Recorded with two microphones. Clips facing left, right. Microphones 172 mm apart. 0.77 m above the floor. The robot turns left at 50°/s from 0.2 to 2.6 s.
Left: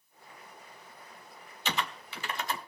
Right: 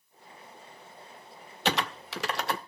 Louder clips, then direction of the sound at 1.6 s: Right 5 dB; 70° right (ahead or behind).